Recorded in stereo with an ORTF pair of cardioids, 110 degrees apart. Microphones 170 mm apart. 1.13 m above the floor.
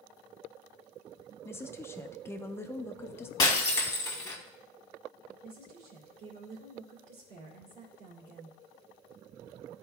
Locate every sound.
1.4 s a woman speaking: 15° left, 0.6 m
3.4 s breaking glass: 25° left, 1.5 m
5.4 s a woman speaking: 60° right, 2.5 m